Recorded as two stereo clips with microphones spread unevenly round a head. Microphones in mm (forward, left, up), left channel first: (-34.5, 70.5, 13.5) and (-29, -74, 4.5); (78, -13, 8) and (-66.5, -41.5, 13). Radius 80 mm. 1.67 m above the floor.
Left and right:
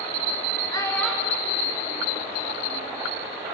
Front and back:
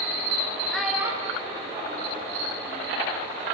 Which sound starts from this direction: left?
A child speaking, at 0.7 s.